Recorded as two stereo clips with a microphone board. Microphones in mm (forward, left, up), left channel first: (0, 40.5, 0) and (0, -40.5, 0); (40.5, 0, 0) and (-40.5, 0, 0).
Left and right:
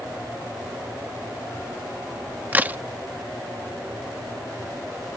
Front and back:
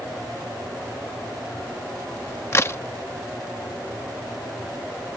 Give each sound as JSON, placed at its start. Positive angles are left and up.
{"t": 2.5, "sound": "a crack", "azimuth_deg": -35}